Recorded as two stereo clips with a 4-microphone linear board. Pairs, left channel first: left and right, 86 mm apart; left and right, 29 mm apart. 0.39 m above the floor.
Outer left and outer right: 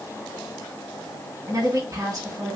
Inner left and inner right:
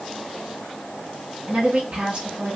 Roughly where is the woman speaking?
Right.